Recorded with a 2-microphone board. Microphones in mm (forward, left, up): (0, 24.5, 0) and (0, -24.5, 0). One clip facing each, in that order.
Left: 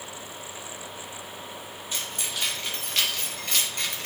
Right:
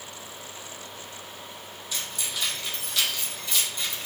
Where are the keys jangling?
40° left (ahead or behind), 3 m; by 4.1 s 65° left (ahead or behind), 1.6 m.